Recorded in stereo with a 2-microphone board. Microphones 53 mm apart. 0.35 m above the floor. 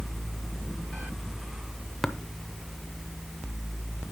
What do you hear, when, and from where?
2.0 s tapping: 5° left (ahead or behind), 0.6 m